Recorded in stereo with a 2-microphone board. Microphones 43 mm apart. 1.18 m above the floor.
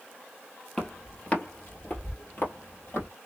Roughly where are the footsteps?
Centre.